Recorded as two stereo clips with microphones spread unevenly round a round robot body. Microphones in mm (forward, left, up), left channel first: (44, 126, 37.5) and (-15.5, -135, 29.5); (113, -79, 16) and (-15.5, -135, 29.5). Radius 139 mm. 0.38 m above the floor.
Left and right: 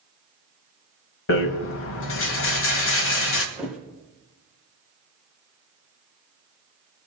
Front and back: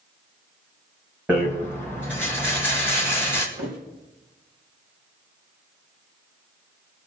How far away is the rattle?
About 1.9 m.